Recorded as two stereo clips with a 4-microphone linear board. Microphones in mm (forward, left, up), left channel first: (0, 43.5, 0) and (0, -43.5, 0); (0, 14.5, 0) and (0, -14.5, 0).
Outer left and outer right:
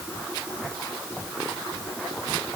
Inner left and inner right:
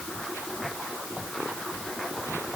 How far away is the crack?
I don't hear a crack.